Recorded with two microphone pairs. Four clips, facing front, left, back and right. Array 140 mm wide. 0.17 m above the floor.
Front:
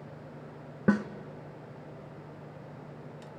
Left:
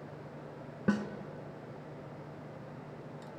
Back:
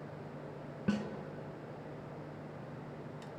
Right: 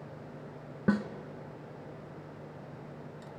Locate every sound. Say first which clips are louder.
0.9 s a snare drum: right 2 dB, front 9 dB; 5° right, 0.9 m